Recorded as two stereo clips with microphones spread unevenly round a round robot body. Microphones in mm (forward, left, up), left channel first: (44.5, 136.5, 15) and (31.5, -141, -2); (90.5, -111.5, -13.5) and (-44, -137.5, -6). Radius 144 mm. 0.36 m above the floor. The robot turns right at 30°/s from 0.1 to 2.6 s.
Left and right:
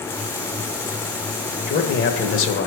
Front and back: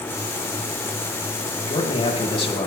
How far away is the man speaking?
About 1.1 m.